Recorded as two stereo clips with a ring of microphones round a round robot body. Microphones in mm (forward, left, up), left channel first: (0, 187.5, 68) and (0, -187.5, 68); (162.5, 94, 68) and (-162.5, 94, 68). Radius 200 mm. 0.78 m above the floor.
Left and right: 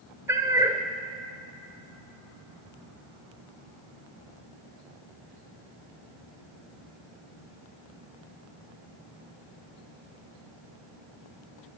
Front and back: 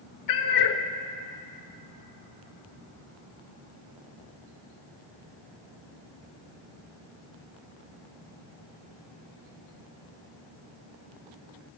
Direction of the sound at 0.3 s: 10° right.